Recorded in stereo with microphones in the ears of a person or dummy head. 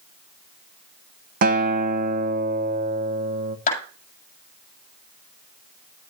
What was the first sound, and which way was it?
A guitar, 45° right (ahead or behind).